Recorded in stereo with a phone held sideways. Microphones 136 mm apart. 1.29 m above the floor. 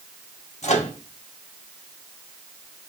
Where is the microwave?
55° left (ahead or behind), 1.0 m.